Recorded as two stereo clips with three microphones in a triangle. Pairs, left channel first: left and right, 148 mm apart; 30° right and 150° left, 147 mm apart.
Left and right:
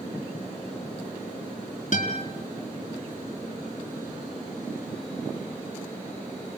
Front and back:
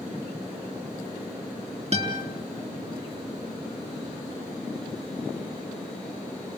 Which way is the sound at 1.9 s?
115° left.